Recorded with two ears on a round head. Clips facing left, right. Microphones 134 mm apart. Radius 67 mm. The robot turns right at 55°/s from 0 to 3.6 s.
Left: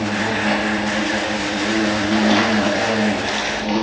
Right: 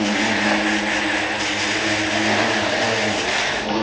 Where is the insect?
30° right, 3 m; by 3.8 s 170° left, 3 m.